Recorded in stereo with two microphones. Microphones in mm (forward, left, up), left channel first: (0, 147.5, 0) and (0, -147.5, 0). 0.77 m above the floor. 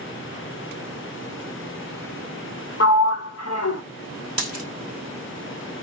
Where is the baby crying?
No baby crying in this recording.